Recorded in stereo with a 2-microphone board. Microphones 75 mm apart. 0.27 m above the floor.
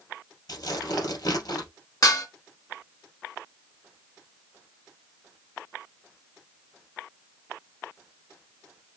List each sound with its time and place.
0.5 s tearing paper: 60° left (ahead or behind), 2.5 m
2.0 s dishes clattering: 55° left (ahead or behind), 1.9 m